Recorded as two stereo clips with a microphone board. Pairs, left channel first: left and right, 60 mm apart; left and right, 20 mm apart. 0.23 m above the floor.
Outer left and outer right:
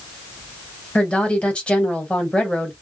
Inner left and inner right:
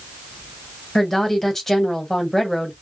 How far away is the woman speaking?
About 1.0 m.